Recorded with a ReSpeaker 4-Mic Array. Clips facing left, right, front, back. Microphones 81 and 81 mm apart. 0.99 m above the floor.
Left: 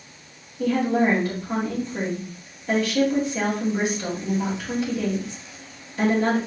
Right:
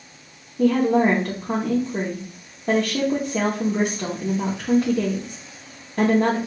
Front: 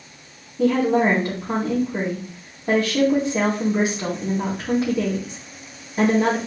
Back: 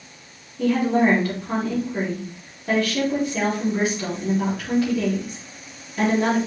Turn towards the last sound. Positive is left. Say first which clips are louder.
# right 3 dB, front 1 dB
turn(degrees=-70)